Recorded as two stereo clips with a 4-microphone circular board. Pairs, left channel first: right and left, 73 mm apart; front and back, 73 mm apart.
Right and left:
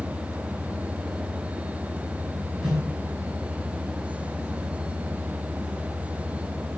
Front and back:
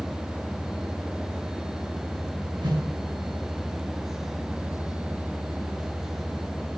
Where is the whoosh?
165° left, 4.5 m.